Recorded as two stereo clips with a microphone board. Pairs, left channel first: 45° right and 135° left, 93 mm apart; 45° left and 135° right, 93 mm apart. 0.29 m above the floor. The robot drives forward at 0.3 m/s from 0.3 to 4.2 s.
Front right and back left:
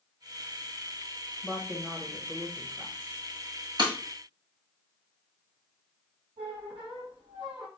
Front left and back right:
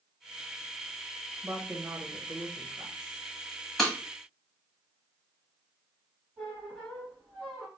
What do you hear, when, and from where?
1.4 s a woman speaking: 115° right, 0.9 m; by 3.2 s 160° right, 1.1 m
3.8 s breaking glass: 130° left, 1.2 m
6.4 s a squeak: 140° left, 3 m